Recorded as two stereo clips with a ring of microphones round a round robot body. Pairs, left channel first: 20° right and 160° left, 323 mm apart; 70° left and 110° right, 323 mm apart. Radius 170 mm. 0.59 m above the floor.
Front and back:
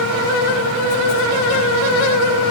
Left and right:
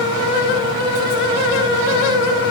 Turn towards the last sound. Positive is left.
No sound to turn to.